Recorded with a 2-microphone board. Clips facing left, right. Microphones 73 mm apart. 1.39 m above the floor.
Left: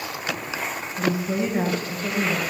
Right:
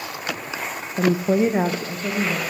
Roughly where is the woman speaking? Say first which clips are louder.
Right 6 dB; right.